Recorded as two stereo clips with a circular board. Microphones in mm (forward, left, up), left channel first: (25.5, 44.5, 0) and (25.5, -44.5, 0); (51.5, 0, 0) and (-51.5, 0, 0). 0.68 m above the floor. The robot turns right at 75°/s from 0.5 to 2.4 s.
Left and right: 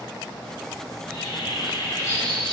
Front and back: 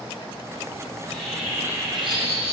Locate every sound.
0.9 s a bird: 60° left, 2.5 m; by 2.5 s 170° left, 2.5 m